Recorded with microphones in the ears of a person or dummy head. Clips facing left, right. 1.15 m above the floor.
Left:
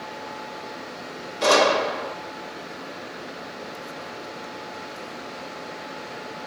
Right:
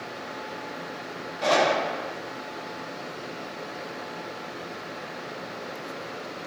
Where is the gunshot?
70° left (ahead or behind), 2 m.